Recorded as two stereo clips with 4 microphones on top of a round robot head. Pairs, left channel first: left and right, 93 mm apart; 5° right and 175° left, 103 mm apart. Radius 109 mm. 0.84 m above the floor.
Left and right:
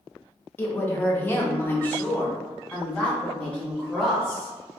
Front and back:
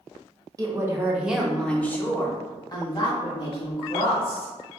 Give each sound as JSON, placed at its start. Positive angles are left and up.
{"t": 0.6, "sound": "a woman speaking", "azimuth_deg": 145, "distance_m": 1.1}